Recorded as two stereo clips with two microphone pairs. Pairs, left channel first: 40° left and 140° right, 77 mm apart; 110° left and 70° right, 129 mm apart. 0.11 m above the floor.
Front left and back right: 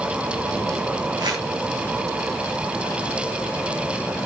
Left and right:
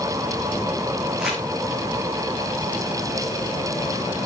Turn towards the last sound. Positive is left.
turn(degrees=-155)